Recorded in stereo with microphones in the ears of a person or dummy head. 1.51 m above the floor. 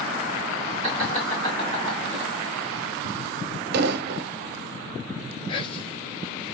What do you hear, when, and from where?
0.8 s laughter: 20° left (ahead or behind), 1.5 m
3.7 s an explosion: 60° right (ahead or behind), 0.6 m
5.5 s whispering: 35° left (ahead or behind), 1.0 m